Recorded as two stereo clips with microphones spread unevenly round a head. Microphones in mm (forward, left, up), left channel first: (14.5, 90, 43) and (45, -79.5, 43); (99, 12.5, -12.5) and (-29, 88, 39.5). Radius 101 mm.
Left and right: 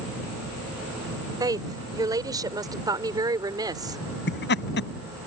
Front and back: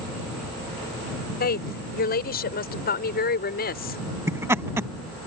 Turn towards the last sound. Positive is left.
turn(degrees=80)